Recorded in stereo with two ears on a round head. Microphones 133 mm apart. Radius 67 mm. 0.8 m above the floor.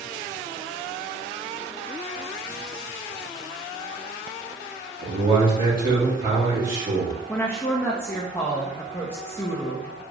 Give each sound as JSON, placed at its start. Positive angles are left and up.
{"t": 5.0, "sound": "a man speaking", "side_deg": -60, "distance_m": 1.8}
{"t": 7.3, "sound": "a woman speaking", "side_deg": 15, "distance_m": 0.6}